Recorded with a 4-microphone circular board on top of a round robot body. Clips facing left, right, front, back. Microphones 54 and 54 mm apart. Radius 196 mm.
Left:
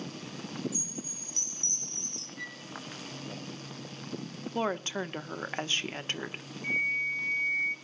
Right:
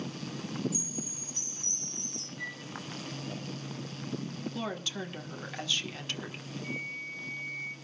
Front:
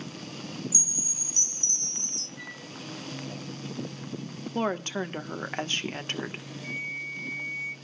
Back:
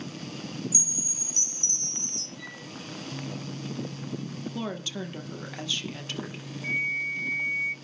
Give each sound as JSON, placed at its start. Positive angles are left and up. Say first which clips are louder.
{"t": 0.7, "sound": "a chime", "louder": "right 2 dB, back 2 dB", "azimuth_deg": 120, "distance_m": 3.5}
{"t": 2.4, "sound": "a flute", "louder": "right 2 dB, front 2 dB", "azimuth_deg": 45, "distance_m": 4.5}
{"t": 4.5, "sound": "a woman speaking", "louder": "left 8 dB, front 7 dB", "azimuth_deg": 40, "distance_m": 1.5}
{"t": 6.6, "sound": "a flute", "louder": "left 10 dB, back 7 dB", "azimuth_deg": 130, "distance_m": 0.9}